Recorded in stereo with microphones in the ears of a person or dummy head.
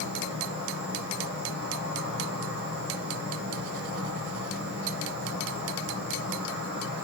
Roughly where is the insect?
Right.